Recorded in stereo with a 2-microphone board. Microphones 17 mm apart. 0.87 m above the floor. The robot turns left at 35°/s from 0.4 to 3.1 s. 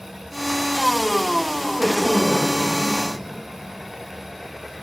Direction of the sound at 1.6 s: 165° right.